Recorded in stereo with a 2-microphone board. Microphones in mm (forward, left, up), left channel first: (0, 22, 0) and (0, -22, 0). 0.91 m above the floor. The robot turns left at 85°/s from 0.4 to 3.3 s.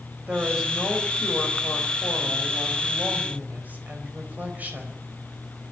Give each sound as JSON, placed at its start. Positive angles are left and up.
{"t": 0.3, "sound": "a woman speaking", "azimuth_deg": -155, "distance_m": 4.5}